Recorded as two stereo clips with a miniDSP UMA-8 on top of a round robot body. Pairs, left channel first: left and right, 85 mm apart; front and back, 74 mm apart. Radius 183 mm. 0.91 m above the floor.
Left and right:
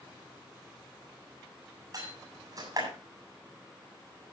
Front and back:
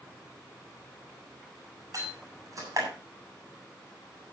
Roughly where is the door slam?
Behind right.